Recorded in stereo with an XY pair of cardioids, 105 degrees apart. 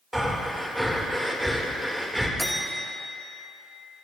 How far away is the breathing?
About 2.5 m.